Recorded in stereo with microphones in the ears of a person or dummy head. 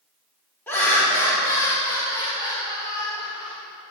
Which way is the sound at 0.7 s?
10° left (ahead or behind).